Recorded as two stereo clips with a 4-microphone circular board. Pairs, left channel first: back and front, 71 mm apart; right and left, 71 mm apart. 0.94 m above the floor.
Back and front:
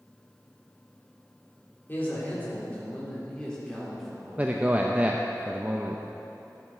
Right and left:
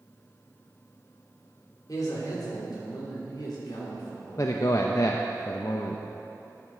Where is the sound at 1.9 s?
120° right, 3 m; by 4.8 s 85° right, 3.5 m.